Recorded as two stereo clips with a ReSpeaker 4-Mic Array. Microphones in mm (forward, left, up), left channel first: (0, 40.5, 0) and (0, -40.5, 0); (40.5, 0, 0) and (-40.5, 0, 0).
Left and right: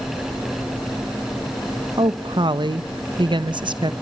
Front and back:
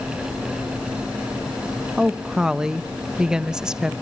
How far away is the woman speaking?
About 0.8 m.